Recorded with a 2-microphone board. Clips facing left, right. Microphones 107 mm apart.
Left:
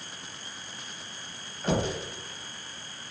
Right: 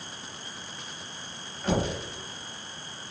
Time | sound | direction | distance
1.6 | knocking | centre (ahead or behind) | 1.0 m